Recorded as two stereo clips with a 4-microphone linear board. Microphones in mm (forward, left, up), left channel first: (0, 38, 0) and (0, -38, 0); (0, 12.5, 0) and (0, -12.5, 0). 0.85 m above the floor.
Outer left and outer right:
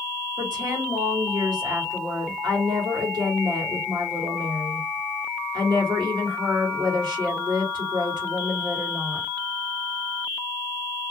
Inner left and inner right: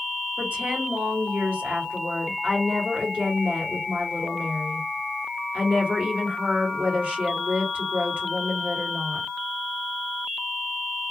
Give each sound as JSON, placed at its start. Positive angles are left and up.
{"t": 0.4, "sound": "a woman speaking", "side_deg": -75, "distance_m": 1.8}